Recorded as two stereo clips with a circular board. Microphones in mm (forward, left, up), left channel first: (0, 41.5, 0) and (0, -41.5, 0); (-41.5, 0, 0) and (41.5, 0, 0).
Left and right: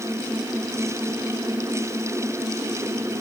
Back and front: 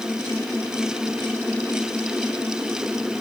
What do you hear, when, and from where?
Only background noise.